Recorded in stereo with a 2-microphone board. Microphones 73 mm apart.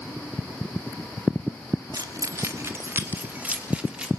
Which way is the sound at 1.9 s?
55° right (ahead or behind).